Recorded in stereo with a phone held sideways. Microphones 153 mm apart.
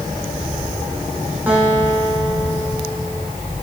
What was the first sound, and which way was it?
A guitar, 10° right (ahead or behind).